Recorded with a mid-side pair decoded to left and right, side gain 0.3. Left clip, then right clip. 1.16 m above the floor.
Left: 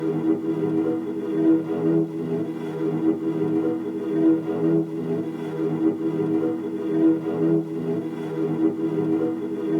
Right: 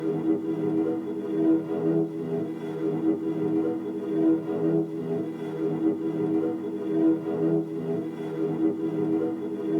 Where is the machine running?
60° left, 0.7 m.